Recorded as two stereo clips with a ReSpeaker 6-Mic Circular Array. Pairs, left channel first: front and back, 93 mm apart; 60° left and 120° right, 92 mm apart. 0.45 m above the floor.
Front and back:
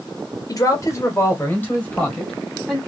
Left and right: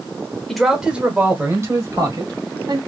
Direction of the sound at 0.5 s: 25° right.